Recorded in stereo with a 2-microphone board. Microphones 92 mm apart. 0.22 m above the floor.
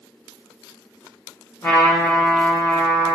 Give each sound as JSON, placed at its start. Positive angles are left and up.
{"t": 1.6, "sound": "a trumpet", "side_deg": 25, "distance_m": 1.1}